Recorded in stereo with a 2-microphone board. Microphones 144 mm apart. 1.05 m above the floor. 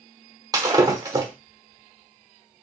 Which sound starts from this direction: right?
Breaking glass, at 0.5 s.